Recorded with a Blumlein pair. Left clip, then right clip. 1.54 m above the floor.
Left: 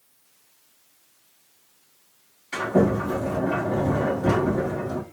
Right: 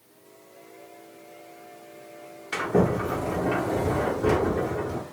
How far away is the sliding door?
About 1.3 m.